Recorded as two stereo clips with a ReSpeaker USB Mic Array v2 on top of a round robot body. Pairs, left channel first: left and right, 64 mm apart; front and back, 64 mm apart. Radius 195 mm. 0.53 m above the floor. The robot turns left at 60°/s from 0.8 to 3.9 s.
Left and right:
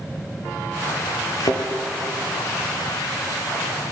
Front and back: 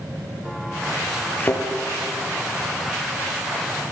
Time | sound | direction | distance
1.4 | a thud | 65° left | 3.5 m